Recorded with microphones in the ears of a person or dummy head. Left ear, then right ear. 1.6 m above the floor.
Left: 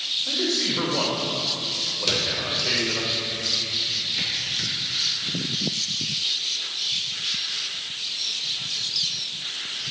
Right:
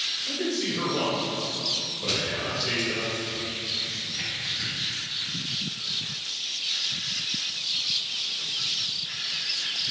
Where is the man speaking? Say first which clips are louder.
Left 5 dB; 50° left (ahead or behind), 1.6 m.